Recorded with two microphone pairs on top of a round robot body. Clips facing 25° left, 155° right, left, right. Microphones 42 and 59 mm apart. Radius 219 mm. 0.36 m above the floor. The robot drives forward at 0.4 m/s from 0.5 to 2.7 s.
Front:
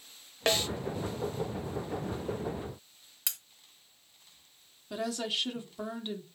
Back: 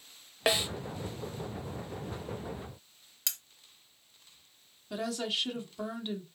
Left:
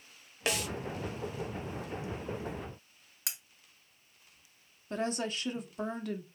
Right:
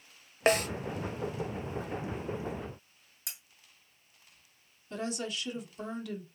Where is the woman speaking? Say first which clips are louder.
Even, left 2 dB; 115° left, 1.5 m.